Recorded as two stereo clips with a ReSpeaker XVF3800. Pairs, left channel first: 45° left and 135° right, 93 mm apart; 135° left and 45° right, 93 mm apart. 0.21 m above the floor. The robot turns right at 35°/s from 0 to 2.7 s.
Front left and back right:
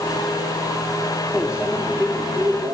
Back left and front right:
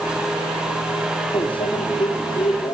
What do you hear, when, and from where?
1.3 s a microwave: 140° left, 4 m; by 2.8 s 175° right, 4 m